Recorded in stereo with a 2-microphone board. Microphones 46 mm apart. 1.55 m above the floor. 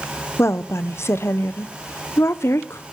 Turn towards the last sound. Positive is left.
turn(degrees=70)  # may be behind; listen again after turning